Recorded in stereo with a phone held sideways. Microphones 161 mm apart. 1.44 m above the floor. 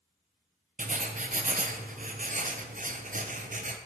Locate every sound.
0.8 s writing: 55° right (ahead or behind), 0.5 m